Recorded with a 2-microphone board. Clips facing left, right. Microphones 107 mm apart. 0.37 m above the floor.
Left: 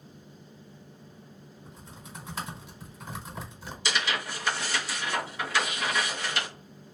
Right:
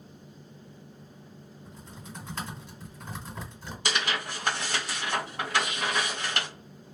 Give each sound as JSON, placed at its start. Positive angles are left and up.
{"t": 1.6, "sound": "typing on a keyboard", "side_deg": 10, "distance_m": 1.6}
{"t": 3.9, "sound": "tearing paper", "side_deg": -55, "distance_m": 1.8}